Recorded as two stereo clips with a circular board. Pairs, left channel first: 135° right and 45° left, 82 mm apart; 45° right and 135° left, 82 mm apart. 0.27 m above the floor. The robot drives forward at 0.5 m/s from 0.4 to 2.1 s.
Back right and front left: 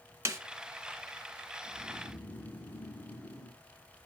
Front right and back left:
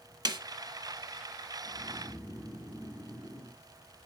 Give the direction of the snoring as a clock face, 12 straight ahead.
3 o'clock.